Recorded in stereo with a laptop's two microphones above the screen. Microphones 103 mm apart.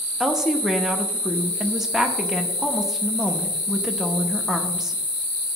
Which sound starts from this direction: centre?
A woman speaking, at 0.2 s.